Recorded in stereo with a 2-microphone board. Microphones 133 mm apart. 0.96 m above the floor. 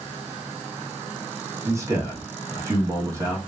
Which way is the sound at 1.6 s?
20° right (ahead or behind).